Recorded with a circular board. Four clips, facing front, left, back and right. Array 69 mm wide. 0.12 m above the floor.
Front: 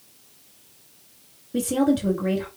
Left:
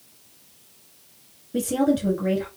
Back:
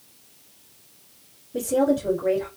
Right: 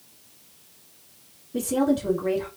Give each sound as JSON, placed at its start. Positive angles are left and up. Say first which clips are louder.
{"t": 1.5, "sound": "a woman speaking", "louder": "left 1 dB, even", "azimuth_deg": 30, "distance_m": 3.0}